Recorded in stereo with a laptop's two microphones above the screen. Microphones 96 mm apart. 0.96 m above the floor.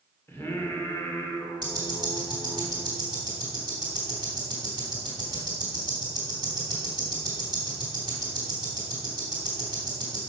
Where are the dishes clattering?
I don't hear dishes clattering.